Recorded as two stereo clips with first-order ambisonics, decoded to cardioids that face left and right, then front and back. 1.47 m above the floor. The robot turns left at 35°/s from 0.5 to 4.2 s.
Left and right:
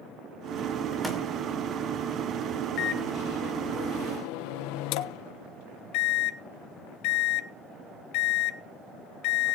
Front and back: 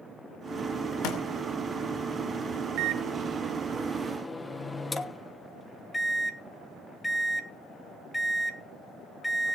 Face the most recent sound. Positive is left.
turn(degrees=85)